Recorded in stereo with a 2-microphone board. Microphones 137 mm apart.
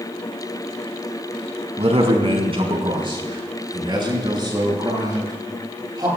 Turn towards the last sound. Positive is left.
turn(degrees=-30)  # may be behind; listen again after turning